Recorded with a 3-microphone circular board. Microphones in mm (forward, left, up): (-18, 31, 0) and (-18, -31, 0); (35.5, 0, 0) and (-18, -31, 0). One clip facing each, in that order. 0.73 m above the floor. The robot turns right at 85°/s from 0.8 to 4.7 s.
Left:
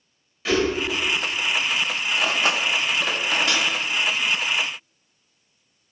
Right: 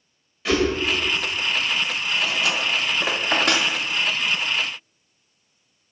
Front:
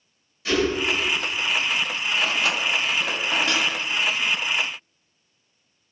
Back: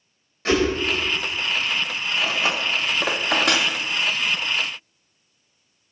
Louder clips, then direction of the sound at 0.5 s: Right 1 dB, back 3 dB; straight behind.